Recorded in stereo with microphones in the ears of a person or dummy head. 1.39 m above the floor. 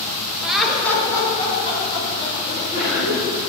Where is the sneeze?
40° left (ahead or behind), 1.9 m.